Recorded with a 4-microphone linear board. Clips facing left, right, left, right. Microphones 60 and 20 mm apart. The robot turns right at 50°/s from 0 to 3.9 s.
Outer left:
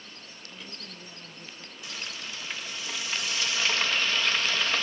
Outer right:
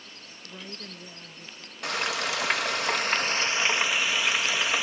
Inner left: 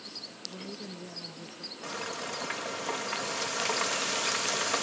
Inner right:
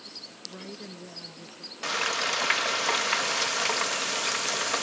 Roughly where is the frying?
Behind right.